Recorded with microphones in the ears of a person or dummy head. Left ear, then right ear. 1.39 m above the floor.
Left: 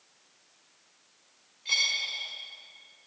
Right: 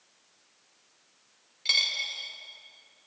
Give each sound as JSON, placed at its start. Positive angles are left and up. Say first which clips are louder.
{"t": 1.6, "sound": "a dropped coin", "louder": "right 1 dB", "side_deg": -50, "distance_m": 3.0}